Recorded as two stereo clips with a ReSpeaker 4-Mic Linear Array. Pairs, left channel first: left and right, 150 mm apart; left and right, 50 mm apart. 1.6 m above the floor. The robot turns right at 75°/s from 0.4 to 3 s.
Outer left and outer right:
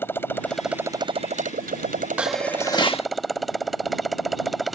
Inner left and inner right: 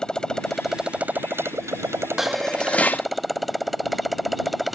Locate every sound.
0.0 s a motorcycle: 165° left; by 4.8 s straight ahead
2.2 s dishes clattering: 10° right; by 3.1 s 50° left